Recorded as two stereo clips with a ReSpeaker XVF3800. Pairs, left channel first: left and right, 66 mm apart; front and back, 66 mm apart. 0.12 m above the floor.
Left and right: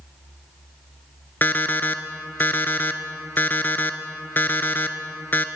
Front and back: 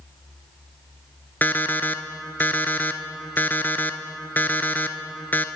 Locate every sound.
1.4 s an alarm clock: 45° left, 0.7 m